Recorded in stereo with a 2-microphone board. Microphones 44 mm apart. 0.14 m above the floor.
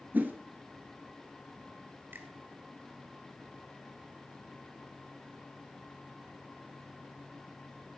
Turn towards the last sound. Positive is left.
turn(degrees=-55)  # may be behind; listen again after turning